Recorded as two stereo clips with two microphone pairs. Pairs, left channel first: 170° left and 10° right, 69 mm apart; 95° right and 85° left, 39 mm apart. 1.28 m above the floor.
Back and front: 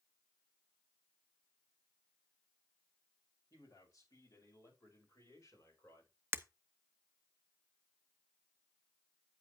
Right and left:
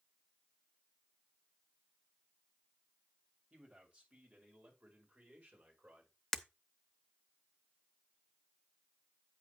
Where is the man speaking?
140° left, 5.5 m; by 6.1 s 125° left, 4.5 m.